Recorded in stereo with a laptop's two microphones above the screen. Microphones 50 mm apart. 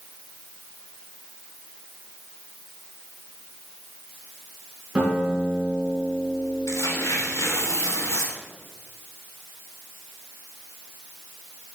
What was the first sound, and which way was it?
A guitar, 10° right (ahead or behind).